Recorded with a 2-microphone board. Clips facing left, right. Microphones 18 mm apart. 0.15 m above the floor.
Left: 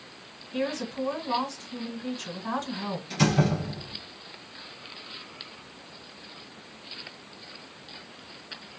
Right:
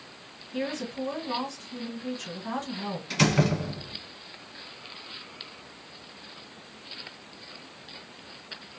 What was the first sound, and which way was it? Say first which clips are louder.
A woman speaking: left 2 dB; 30° left (ahead or behind).